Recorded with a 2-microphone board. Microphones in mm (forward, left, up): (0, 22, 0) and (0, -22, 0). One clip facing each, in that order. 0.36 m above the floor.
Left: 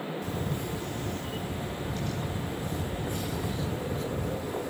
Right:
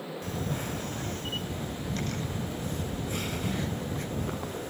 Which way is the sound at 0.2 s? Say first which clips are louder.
Left 1 dB; 60° right (ahead or behind).